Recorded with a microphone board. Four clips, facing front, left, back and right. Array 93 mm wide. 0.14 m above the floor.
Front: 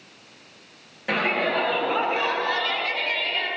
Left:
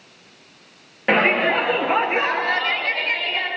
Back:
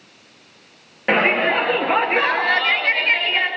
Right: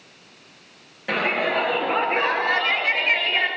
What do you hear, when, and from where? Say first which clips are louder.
1.1 s a shout: left 5 dB, back 6 dB; 135° left, 2.5 m; by 3.5 s 145° right, 2.5 m